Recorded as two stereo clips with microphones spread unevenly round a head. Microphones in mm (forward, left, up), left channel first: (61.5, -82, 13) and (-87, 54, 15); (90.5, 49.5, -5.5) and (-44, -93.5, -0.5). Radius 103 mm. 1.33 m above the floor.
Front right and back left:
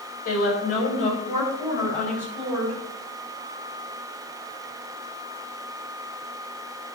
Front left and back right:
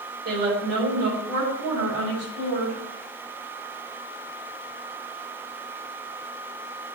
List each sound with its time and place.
0.2 s a woman speaking: 90° right, 5.5 m; by 2.8 s 100° right, 7.5 m